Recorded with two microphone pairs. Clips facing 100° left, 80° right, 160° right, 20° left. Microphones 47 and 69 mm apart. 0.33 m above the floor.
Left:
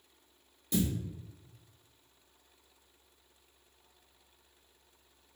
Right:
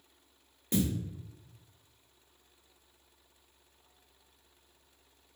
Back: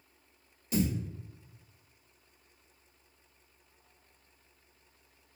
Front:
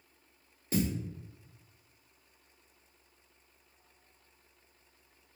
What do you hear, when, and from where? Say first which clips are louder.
0.7 s a thud: right 1 dB, back 1 dB; 35° right, 1.7 m